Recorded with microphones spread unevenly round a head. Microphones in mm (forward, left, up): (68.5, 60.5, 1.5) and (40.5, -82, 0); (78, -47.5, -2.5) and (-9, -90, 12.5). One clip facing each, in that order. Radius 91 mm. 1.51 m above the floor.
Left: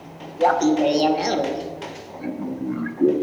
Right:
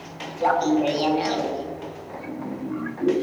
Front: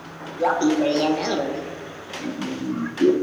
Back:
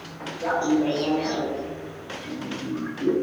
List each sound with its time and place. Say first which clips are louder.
0.4 s laughter: left 3 dB, front 3 dB; 35° left, 1.3 m